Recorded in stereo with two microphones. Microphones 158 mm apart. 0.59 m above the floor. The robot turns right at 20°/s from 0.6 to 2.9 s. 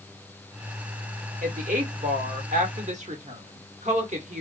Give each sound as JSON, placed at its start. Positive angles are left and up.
{"t": 1.4, "sound": "a woman speaking", "side_deg": -55, "distance_m": 1.1}